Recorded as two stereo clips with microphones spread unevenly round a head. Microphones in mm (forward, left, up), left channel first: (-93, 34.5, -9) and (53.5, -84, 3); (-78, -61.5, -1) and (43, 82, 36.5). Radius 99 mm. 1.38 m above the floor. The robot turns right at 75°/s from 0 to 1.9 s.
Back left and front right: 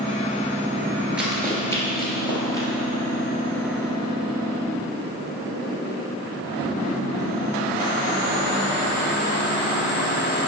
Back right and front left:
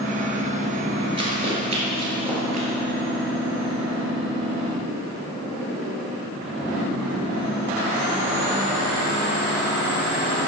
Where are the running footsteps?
35° left, 1.6 m; by 2.7 s 70° left, 2.0 m.